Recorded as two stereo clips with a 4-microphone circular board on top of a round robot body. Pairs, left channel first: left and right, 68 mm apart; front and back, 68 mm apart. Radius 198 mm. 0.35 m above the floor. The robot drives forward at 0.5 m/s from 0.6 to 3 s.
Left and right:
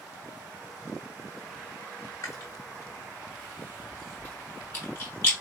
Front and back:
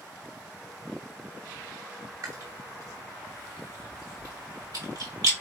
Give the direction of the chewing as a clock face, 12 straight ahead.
7 o'clock.